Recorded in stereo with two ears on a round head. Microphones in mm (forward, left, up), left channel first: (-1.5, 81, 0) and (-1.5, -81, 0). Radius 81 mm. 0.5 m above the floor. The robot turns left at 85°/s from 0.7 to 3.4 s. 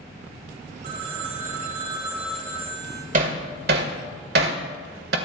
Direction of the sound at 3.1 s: 45° right (ahead or behind).